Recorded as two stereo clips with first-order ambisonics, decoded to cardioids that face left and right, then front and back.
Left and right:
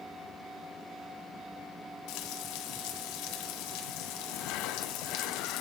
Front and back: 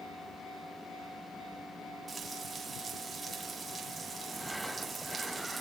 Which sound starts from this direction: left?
Frying, at 2.1 s.